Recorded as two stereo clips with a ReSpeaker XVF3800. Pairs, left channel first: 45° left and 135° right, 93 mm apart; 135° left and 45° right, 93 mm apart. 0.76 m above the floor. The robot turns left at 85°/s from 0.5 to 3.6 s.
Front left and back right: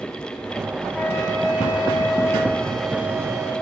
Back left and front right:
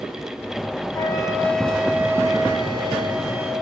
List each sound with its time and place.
0.9 s a flute: 110° left, 1.1 m; by 3.5 s 110° right, 1.1 m